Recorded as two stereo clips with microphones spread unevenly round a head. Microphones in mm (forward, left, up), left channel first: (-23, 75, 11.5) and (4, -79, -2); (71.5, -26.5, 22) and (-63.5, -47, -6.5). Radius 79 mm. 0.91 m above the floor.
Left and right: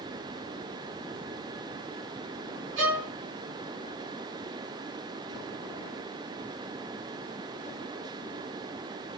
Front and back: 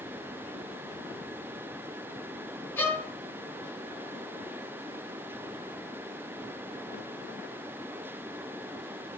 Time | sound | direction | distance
2.8 | a violin | 65° right | 4 m